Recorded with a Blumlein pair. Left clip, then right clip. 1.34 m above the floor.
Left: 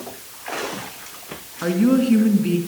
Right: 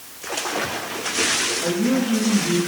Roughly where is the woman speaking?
Ahead.